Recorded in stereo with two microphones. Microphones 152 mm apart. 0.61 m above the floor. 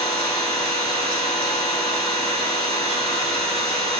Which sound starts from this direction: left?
An engine running, at 0.0 s.